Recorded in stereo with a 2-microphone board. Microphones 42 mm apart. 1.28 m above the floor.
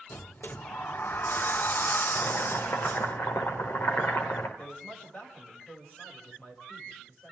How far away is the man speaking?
About 7 m.